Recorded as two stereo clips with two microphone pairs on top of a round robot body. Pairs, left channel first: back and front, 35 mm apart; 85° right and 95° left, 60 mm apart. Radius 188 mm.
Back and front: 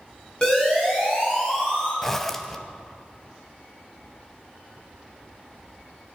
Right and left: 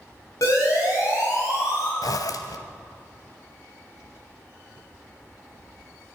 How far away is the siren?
About 8 m.